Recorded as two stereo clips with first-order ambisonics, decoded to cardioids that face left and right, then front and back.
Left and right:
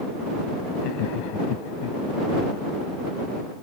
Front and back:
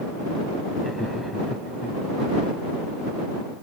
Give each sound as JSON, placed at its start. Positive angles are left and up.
{"t": 0.8, "sound": "laughter", "azimuth_deg": 90}